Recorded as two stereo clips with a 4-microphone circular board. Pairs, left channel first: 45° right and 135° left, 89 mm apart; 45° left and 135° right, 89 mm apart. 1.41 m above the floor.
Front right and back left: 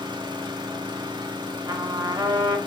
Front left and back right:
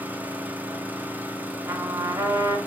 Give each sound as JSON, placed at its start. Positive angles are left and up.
{"t": 0.0, "sound": "an engine running", "azimuth_deg": 160, "distance_m": 1.4}
{"t": 1.6, "sound": "a trumpet", "azimuth_deg": 170, "distance_m": 2.0}